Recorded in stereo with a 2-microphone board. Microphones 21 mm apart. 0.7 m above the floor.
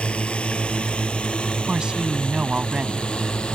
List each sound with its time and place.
0.0 s a drone: 70° left (ahead or behind); by 3.6 s 60° left (ahead or behind)
1.7 s a woman speaking: 40° right (ahead or behind)